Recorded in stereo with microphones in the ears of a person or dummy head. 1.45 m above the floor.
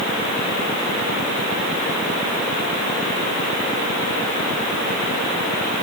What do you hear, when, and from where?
Only background noise.